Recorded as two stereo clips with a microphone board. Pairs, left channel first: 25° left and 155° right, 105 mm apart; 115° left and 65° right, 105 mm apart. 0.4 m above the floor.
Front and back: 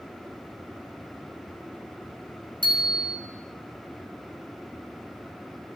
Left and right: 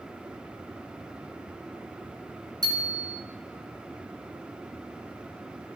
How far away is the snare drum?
No snare drum in this recording.